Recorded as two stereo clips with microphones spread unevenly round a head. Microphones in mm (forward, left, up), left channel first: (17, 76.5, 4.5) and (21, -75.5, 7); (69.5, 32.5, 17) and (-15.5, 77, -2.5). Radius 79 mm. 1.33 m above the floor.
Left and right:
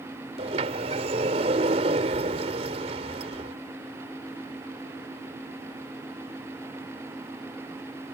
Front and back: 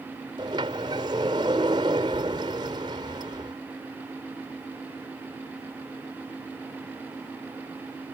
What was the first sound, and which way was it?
A sliding door, 145° right.